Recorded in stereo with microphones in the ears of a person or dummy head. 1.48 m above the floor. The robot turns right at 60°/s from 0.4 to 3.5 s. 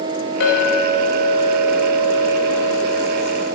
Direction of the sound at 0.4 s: 100° left.